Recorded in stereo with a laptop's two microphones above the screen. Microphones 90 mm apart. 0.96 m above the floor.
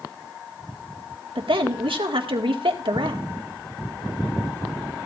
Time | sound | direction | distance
1.4 | a woman speaking | 75° right (ahead or behind) | 1.9 m